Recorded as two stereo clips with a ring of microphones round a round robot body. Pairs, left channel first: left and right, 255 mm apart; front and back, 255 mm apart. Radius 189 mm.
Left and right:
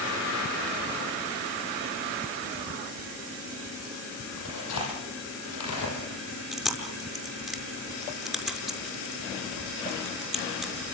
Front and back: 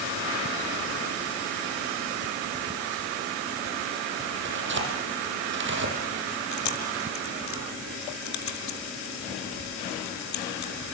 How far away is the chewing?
About 6.5 m.